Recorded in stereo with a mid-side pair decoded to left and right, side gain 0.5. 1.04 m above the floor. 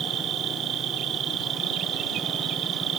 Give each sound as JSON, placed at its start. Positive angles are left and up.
{"t": 0.0, "sound": "an insect", "azimuth_deg": -60}